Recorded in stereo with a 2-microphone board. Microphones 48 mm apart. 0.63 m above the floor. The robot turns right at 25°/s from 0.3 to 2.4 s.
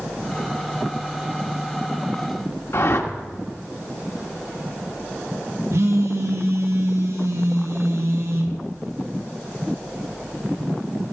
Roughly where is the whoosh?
Left.